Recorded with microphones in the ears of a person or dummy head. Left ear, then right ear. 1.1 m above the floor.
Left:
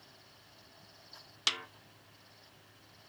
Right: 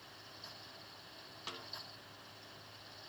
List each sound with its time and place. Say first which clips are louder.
1.5 s a snare drum: left 14 dB; 65° left (ahead or behind), 0.5 m